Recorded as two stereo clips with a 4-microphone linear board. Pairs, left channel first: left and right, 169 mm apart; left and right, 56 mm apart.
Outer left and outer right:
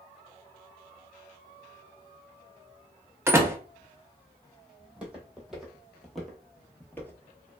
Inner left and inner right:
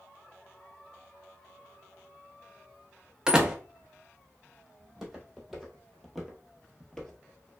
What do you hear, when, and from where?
3.3 s a door slam: 15° right (ahead or behind), 0.5 m
4.8 s footsteps: 5° right (ahead or behind), 1.4 m; by 7.5 s 15° left (ahead or behind), 0.7 m